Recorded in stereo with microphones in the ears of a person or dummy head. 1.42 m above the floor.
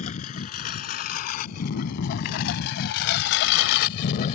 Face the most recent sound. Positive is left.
turn(degrees=45)  # may be behind; listen again after turning